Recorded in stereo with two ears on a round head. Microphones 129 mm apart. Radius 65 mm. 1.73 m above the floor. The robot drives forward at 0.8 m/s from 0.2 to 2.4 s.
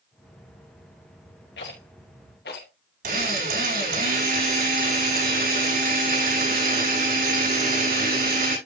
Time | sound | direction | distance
1.6 | a rattle | 85° left | 4.5 m
3.0 | a drill | 65° right (ahead or behind) | 6.5 m